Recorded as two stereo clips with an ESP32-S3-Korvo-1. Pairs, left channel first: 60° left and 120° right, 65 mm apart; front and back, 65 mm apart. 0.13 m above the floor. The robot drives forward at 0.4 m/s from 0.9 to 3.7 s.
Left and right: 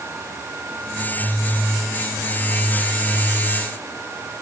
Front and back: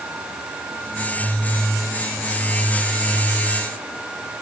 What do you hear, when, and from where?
Only background noise.